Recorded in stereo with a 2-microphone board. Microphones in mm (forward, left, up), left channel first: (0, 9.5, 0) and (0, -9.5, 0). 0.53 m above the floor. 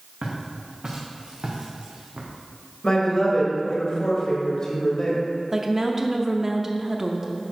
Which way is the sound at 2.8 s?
40° left (ahead or behind).